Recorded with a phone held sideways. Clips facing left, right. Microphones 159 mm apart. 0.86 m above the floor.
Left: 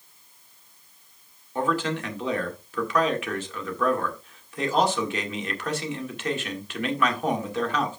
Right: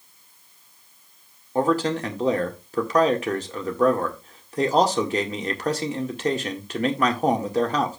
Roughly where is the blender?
No blender in this recording.